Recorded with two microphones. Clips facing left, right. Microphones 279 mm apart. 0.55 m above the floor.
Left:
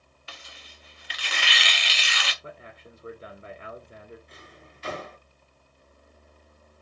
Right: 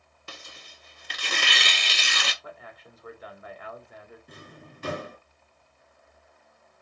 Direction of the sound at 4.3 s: 60° right (ahead or behind).